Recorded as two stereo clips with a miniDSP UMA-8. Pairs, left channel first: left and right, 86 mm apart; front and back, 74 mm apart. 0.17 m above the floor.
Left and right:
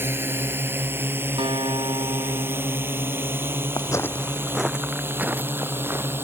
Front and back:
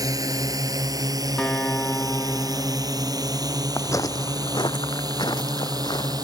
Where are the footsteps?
55° left; by 6.2 s 25° right.